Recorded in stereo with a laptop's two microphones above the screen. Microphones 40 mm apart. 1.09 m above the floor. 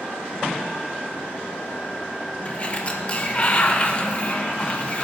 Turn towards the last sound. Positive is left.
turn(degrees=30)  # may be behind; listen again after turning